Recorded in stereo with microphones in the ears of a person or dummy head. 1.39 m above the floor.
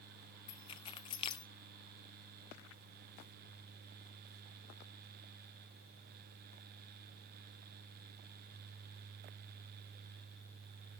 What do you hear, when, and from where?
0.5 s keys jangling: 25° left (ahead or behind), 0.5 m